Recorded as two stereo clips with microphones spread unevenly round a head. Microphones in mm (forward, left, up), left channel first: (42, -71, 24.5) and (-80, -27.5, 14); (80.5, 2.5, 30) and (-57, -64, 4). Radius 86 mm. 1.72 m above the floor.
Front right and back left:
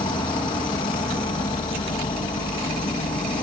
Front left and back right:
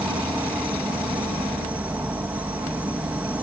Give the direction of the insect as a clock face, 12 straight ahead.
2 o'clock.